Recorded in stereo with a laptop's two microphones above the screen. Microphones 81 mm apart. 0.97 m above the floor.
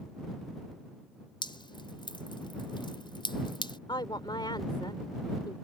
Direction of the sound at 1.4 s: 85° left.